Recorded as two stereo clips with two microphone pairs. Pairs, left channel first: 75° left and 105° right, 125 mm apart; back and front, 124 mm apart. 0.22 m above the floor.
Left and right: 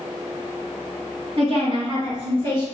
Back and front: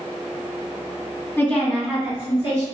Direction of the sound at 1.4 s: 115° right.